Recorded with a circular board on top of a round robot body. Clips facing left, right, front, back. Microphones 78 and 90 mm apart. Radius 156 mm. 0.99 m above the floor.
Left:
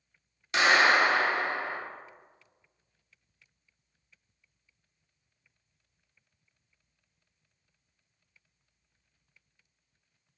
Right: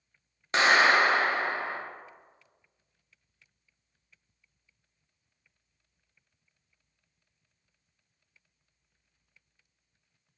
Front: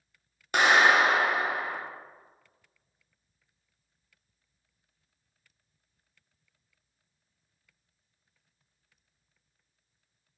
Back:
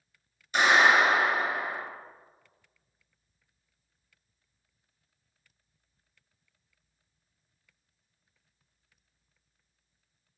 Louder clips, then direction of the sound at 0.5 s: Right 1 dB, even; 35° right.